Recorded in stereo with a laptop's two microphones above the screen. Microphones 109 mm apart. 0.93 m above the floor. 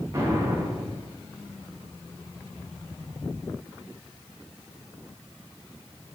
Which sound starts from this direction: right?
An explosion, at 0.1 s.